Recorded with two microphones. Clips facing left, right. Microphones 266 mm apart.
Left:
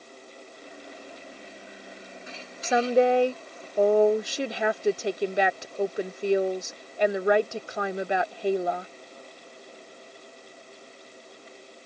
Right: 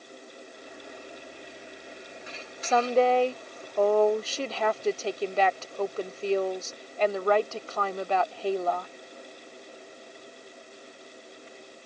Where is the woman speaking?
15° left (ahead or behind).